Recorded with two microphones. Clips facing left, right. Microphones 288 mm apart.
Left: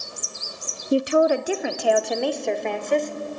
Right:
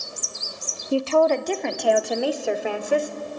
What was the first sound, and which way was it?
A woman speaking, 20° left (ahead or behind).